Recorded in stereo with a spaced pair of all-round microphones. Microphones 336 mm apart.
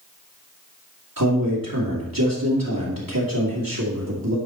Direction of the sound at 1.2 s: 80° right.